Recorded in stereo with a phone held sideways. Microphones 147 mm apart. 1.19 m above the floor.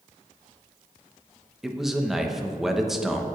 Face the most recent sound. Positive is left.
turn(degrees=-5)  # may be behind; listen again after turning